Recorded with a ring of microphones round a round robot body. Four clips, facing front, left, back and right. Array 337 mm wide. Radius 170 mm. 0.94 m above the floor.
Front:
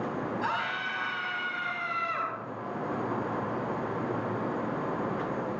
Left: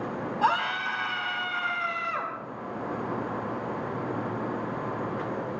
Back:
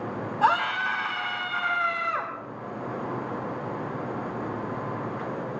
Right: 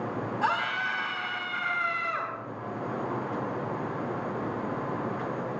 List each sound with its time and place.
0.4 s a scream: 165° left, 5 m